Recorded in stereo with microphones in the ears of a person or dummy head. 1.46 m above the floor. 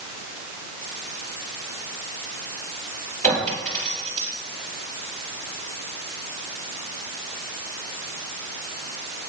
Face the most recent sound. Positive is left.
turn(degrees=15)  # may be behind; listen again after turning